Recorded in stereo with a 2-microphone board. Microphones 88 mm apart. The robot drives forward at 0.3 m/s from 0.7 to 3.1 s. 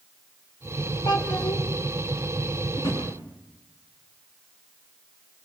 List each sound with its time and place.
1.1 s a child speaking: 55° left (ahead or behind), 3.5 m
2.8 s a drawer: 50° left (ahead or behind), 7.5 m; by 3.0 s 45° left (ahead or behind), 7.5 m